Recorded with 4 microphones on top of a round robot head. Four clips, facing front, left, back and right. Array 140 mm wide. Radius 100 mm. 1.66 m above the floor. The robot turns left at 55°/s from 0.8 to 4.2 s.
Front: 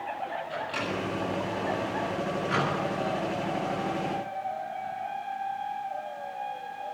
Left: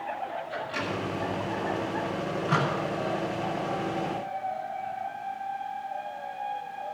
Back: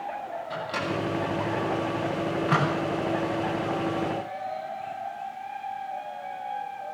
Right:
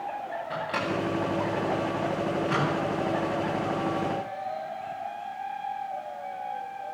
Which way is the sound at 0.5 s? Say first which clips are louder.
Right 3 dB, back 2 dB; 105° right.